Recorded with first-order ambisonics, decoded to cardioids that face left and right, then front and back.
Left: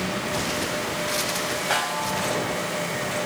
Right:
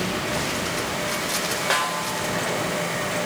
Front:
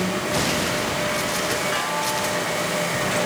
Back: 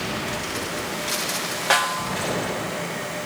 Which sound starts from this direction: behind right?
A snare drum, at 1.7 s.